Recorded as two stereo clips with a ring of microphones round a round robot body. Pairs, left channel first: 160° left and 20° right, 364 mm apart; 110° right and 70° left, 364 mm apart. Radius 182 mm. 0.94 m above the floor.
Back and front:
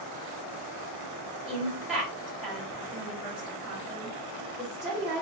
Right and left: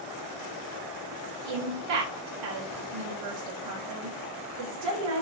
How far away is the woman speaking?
About 0.6 m.